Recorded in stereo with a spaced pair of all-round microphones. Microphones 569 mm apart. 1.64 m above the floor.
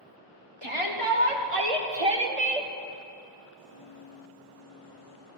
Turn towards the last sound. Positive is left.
turn(degrees=-70)  # may be behind; listen again after turning